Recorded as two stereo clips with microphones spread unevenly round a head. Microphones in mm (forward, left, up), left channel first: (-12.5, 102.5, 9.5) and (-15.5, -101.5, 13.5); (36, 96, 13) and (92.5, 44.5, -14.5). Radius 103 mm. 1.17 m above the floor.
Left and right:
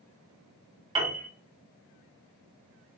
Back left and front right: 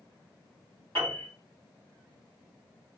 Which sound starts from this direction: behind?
A piano, at 0.9 s.